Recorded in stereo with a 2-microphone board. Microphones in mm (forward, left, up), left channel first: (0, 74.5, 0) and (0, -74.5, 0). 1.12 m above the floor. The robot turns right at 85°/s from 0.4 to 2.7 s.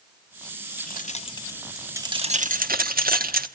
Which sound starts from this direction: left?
Keys jangling, at 0.8 s.